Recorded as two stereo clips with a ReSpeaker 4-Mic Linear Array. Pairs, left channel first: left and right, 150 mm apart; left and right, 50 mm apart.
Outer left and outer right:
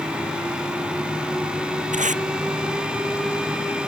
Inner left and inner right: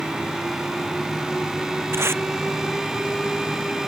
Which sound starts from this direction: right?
Tape being pulled, at 1.9 s.